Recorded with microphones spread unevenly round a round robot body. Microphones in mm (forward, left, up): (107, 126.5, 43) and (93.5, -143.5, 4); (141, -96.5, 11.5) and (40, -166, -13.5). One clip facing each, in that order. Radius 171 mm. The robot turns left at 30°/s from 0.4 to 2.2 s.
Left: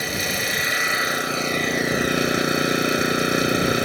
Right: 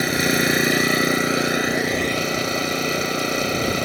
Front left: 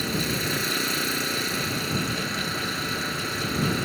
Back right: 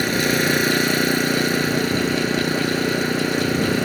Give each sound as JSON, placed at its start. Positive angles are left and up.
{"t": 0.0, "sound": "an engine running", "azimuth_deg": -140}